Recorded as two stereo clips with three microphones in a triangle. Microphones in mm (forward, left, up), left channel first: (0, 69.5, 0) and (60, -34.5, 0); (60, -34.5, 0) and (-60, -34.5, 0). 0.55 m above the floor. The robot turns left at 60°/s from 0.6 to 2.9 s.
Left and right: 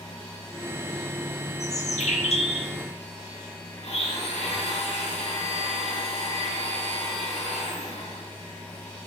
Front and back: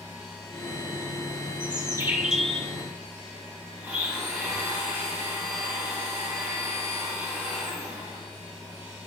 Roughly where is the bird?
Behind left.